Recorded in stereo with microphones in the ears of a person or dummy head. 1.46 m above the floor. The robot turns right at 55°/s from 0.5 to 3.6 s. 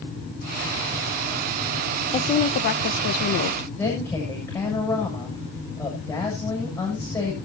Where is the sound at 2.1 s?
30° left, 0.7 m; by 3.7 s 110° left, 0.7 m.